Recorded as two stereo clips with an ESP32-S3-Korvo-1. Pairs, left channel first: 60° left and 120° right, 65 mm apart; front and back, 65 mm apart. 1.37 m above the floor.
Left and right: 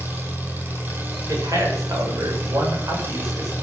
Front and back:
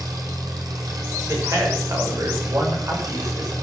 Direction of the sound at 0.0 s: 175° right.